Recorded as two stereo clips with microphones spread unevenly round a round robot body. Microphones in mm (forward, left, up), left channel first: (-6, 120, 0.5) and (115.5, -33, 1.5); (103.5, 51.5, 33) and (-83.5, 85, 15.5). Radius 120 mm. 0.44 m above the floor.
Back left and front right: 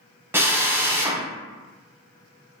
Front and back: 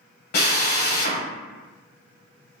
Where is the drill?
25° left, 1.3 m.